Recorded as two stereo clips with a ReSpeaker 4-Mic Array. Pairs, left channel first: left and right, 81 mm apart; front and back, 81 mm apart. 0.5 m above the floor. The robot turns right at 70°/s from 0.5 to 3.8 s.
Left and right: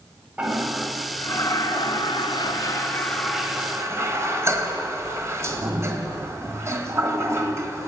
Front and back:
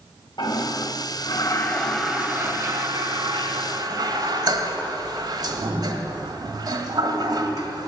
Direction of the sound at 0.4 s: 15° right.